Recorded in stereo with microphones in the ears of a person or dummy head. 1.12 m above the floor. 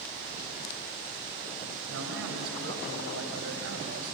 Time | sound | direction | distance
1.9 | a man speaking | 75° right (ahead or behind) | 6 m